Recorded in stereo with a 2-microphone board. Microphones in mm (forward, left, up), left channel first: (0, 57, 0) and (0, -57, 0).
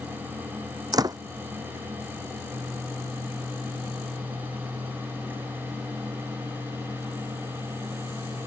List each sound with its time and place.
0.9 s a door slam: 35° right (ahead or behind)